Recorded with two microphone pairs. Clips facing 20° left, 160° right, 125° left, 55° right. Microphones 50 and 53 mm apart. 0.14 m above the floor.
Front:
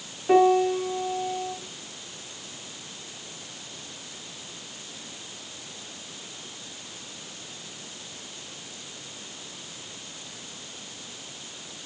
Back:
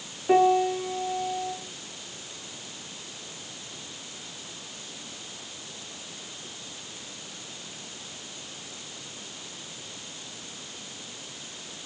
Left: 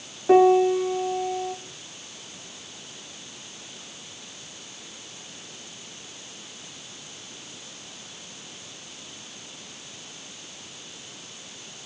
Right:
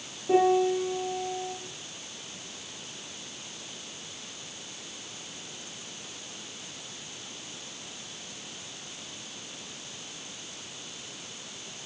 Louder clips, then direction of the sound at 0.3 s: Front 2 dB, left 6 dB; 105° left.